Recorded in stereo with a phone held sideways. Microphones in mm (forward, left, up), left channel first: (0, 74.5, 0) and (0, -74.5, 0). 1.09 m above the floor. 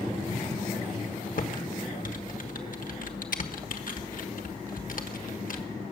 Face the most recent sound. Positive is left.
turn(degrees=65)  # may be behind; listen again after turning